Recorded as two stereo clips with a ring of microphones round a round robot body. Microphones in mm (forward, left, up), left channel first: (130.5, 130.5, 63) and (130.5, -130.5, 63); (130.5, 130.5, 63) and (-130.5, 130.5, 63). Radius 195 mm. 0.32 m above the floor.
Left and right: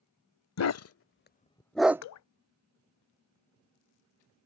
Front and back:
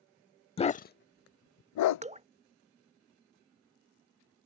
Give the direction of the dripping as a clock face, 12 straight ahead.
8 o'clock.